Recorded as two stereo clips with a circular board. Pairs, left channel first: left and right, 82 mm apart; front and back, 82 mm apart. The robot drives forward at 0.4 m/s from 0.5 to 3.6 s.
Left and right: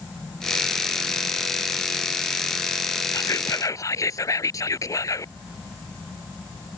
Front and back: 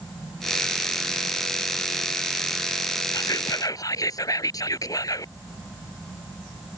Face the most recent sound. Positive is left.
turn(degrees=40)